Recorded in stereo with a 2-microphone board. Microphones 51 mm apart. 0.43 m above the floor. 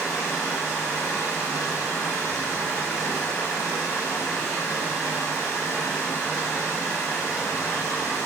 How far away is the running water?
About 1.0 m.